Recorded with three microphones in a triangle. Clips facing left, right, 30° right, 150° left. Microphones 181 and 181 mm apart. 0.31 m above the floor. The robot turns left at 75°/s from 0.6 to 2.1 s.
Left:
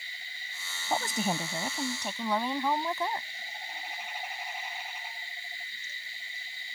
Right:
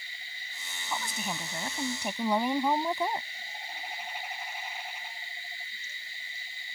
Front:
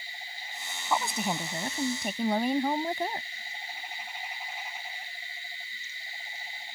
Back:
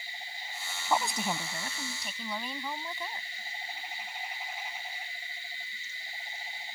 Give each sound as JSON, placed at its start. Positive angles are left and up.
{"t": 0.9, "sound": "a woman speaking", "azimuth_deg": 70}